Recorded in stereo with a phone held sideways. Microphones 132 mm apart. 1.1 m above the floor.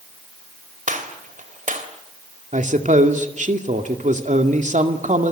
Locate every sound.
0.9 s a gunshot: 75° right (ahead or behind), 3 m
2.5 s a man speaking: 70° right (ahead or behind), 2 m